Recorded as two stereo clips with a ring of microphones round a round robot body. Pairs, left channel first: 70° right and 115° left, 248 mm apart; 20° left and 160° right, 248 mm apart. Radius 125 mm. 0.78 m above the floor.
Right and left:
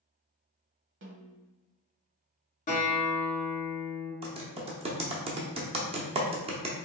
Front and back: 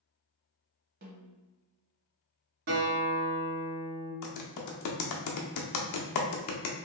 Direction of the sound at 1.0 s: 150° left.